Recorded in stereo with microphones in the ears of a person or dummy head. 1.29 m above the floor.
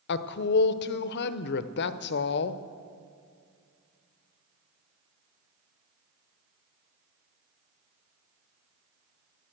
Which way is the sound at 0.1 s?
60° left (ahead or behind).